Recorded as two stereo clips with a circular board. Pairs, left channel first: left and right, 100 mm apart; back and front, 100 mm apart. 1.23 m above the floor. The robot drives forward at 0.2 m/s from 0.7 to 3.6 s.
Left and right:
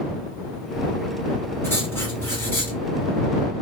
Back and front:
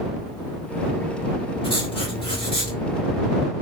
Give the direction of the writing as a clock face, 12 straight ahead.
7 o'clock.